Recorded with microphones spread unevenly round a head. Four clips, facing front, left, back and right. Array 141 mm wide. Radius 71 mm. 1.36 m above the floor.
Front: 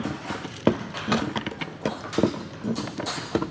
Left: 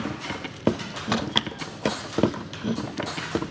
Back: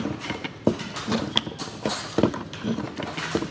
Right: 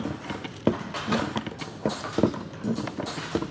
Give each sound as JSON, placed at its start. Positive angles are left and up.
{"t": 1.1, "sound": "a crack", "azimuth_deg": 75, "distance_m": 9.0}